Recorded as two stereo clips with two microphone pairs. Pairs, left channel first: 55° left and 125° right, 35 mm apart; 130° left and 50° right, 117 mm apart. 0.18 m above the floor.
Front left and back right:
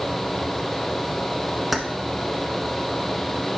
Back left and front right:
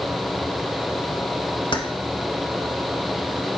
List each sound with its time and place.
1.7 s keys jangling: 150° left, 1.2 m